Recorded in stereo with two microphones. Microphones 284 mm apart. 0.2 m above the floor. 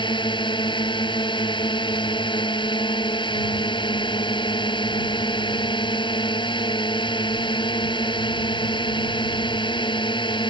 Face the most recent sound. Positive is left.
turn(degrees=15)  # may be behind; listen again after turning